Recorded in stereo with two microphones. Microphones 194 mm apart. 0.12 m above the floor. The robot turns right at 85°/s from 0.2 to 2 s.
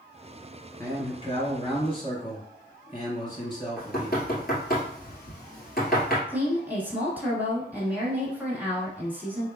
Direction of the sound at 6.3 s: 10° right (ahead or behind).